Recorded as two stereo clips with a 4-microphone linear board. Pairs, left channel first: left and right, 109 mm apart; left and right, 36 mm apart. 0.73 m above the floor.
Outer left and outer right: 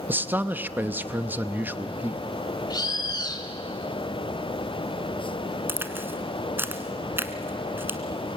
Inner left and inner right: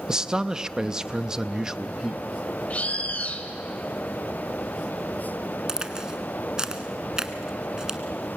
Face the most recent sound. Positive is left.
turn(degrees=-20)  # may be behind; listen again after turning